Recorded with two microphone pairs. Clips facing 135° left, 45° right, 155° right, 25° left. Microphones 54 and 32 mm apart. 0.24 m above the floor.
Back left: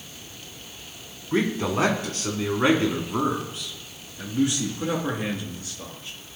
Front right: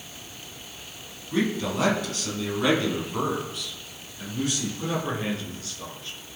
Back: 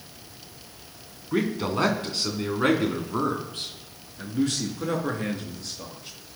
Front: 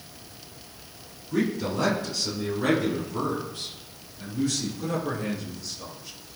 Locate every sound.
1.3 s a man speaking: 175° left, 2.5 m; by 6.2 s 155° right, 4.5 m